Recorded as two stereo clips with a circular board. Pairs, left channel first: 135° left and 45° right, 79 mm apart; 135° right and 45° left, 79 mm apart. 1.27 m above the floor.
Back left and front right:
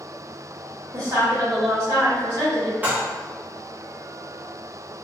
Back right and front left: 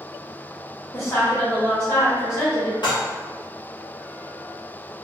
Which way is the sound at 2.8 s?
115° right.